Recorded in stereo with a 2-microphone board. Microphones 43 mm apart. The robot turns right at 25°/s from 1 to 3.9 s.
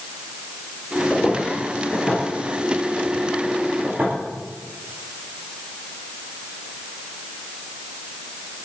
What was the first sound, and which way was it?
Footsteps, 35° left (ahead or behind).